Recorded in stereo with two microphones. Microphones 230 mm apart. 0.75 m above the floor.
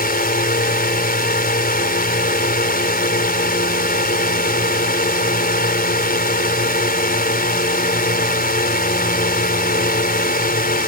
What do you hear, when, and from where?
0.0 s a drone: 40° left (ahead or behind)